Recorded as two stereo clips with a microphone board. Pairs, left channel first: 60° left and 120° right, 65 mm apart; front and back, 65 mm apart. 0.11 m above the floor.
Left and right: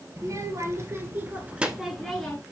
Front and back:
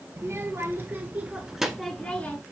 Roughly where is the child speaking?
Behind right.